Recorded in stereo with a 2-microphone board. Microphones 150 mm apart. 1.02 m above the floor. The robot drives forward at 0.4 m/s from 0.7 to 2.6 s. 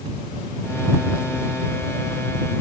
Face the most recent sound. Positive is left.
No sound to turn to.